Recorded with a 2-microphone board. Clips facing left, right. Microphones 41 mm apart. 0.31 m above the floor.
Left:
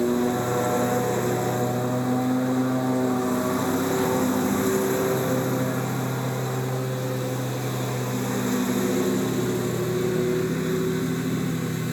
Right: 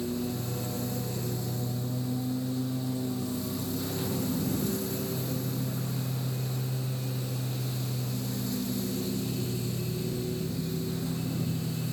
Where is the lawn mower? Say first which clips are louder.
Left 10 dB; 55° left (ahead or behind).